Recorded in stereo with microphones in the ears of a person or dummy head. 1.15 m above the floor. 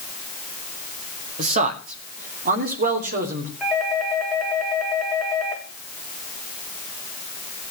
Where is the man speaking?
40° right (ahead or behind), 2 m; by 3.5 s 50° right (ahead or behind), 3.5 m.